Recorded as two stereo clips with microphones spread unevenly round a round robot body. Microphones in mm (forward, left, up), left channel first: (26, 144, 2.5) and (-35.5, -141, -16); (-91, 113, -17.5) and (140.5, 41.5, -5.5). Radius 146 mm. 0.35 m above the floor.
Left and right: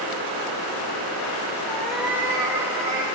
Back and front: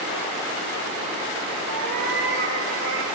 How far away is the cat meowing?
About 3 m.